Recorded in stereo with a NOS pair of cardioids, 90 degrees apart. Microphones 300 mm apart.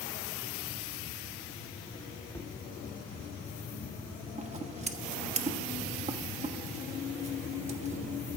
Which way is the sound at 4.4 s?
25° right.